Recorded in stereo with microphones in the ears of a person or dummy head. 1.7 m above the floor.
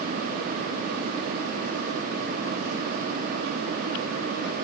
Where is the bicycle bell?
No bicycle bell in this recording.